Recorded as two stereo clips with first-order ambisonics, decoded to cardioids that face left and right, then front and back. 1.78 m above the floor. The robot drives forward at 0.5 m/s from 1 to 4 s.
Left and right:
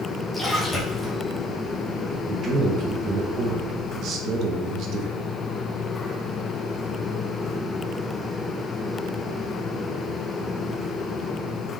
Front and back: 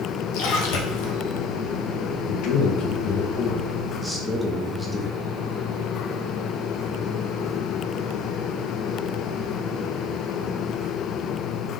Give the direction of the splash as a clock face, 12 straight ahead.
12 o'clock.